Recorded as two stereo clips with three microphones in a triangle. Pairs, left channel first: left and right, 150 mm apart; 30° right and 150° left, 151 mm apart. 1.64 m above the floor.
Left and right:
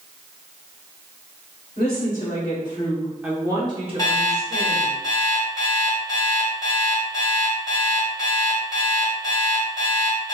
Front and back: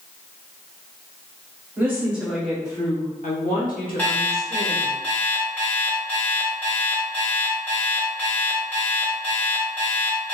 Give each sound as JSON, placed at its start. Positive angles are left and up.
{"t": 1.8, "sound": "a woman speaking", "azimuth_deg": 75, "distance_m": 1.1}
{"t": 4.0, "sound": "an alarm clock", "azimuth_deg": 45, "distance_m": 0.9}